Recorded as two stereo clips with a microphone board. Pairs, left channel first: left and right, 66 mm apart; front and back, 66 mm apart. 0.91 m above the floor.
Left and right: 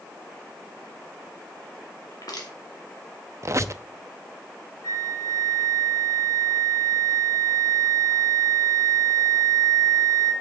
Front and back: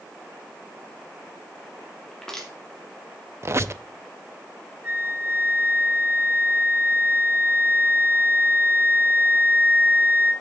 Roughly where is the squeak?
Behind right.